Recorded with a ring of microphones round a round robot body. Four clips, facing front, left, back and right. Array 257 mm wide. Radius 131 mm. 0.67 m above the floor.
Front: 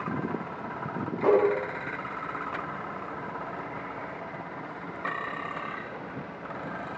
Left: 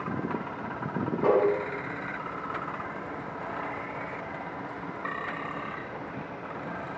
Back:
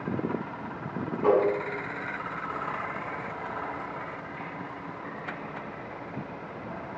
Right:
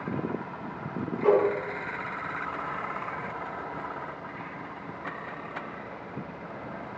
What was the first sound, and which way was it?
Tapping, 25° left.